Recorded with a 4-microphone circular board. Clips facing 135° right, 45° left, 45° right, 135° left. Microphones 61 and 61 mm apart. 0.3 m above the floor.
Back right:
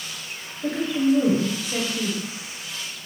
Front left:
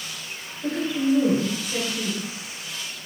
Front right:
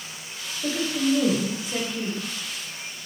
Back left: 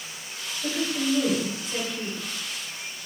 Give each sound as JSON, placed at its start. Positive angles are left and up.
{"t": 0.6, "sound": "a woman speaking", "azimuth_deg": -105, "distance_m": 1.1}